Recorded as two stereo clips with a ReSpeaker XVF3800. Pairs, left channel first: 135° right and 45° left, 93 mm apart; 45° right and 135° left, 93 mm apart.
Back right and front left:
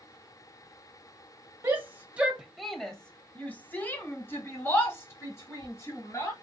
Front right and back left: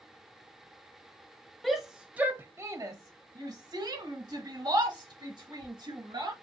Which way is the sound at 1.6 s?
35° left.